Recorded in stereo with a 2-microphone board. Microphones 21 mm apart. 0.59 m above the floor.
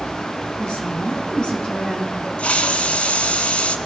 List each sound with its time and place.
0.6 s a woman speaking: 50° left (ahead or behind), 4.5 m
2.4 s a hiss: 70° left (ahead or behind), 1.2 m